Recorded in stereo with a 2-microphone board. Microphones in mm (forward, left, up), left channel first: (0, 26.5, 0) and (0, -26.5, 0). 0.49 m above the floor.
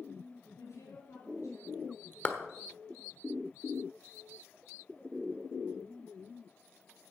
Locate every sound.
0.6 s a woman speaking: 70° left (ahead or behind), 7 m
2.2 s a clap: 25° left (ahead or behind), 1.2 m